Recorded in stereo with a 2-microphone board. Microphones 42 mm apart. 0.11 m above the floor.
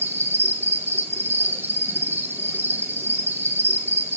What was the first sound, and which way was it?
An insect, 75° right (ahead or behind).